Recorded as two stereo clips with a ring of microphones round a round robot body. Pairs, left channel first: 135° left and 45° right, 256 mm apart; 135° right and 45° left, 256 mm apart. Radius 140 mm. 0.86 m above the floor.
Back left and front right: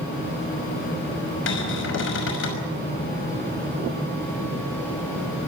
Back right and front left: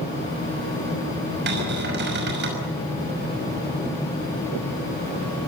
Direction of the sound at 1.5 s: 95° left.